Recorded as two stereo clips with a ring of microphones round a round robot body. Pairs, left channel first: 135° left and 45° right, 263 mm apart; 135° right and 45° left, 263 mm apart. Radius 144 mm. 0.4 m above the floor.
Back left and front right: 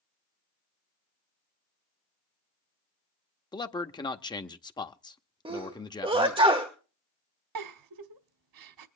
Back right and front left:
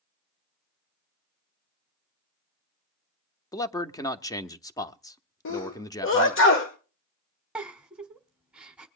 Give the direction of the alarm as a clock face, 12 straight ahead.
I don't hear an alarm.